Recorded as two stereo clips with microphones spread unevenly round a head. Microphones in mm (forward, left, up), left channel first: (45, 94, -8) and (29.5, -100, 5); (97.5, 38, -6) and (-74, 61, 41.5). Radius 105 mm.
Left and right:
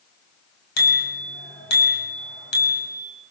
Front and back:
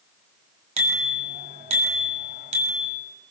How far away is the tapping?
I don't hear tapping.